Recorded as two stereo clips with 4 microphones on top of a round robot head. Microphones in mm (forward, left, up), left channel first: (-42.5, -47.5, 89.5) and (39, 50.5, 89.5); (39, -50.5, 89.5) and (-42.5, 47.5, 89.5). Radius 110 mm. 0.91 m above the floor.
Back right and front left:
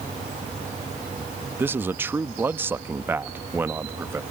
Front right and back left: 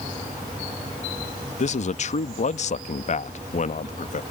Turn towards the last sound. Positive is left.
turn(degrees=-25)